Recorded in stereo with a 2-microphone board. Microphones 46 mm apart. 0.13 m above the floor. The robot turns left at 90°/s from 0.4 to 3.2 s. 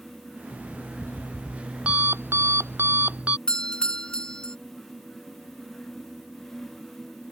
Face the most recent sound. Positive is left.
turn(degrees=20)  # may be behind; listen again after turning